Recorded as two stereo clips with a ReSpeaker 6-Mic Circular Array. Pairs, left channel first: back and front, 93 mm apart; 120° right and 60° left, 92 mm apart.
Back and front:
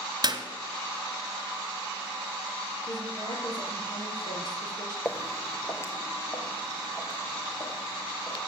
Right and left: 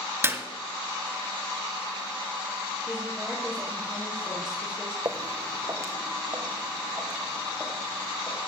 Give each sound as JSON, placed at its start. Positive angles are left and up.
{"t": 0.2, "sound": "a clap", "azimuth_deg": 5, "distance_m": 1.4}
{"t": 2.9, "sound": "a woman speaking", "azimuth_deg": 140, "distance_m": 4.5}
{"t": 5.0, "sound": "footsteps", "azimuth_deg": 105, "distance_m": 0.8}